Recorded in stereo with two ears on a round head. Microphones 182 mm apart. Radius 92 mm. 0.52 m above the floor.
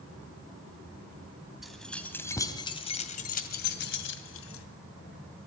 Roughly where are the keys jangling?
Centre.